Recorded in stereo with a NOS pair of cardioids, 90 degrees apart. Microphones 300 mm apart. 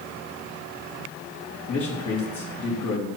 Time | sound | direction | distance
1.7 | a man speaking | 65° left | 3 m